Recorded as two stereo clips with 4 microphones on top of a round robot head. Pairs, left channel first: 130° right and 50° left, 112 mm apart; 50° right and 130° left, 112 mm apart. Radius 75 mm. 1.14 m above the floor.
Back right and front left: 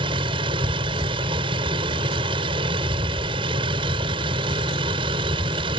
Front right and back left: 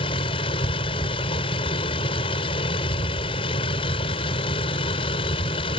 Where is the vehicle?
Straight ahead.